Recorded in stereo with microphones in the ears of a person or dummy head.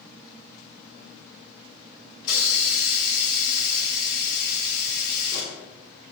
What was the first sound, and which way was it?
A hiss, 50° left (ahead or behind).